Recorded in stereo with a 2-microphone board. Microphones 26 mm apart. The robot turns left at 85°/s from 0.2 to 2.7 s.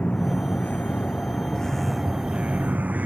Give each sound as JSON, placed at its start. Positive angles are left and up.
{"t": 0.0, "sound": "a vehicle", "azimuth_deg": 140}